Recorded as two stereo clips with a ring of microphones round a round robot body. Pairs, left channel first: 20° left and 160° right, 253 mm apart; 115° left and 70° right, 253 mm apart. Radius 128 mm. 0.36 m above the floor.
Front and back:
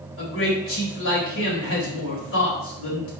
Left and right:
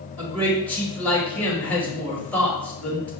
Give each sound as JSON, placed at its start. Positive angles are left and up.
{"t": 0.2, "sound": "a man speaking", "azimuth_deg": 30, "distance_m": 1.7}